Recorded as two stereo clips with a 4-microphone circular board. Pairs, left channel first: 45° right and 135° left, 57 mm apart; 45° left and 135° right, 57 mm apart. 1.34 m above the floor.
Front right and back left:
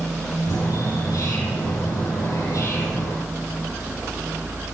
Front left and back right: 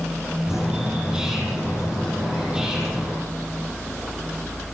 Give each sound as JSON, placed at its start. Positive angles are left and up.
{"t": 0.5, "sound": "a bird", "azimuth_deg": -55, "distance_m": 8.0}